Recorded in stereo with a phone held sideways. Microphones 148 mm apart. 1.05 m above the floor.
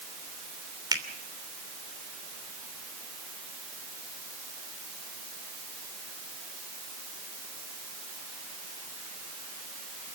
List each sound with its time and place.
0.9 s a finger snap: 30° right (ahead or behind), 3 m